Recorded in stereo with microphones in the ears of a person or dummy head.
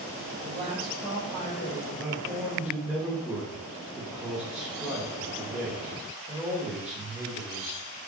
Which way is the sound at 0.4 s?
55° right (ahead or behind).